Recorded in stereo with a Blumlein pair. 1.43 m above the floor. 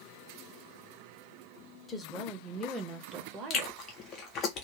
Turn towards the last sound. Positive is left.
turn(degrees=30)